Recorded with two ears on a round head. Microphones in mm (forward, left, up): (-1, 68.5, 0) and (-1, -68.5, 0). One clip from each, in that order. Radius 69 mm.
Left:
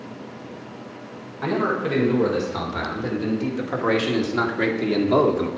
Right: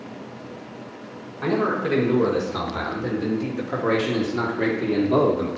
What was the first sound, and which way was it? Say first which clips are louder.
A man speaking: even; centre (ahead or behind).